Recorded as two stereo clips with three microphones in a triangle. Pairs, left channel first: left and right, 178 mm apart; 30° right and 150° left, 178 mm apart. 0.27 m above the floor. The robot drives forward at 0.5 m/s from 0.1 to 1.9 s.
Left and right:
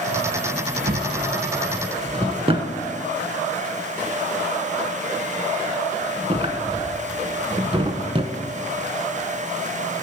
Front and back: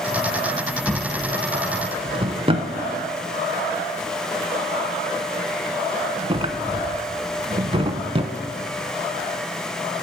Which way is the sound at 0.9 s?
115° right.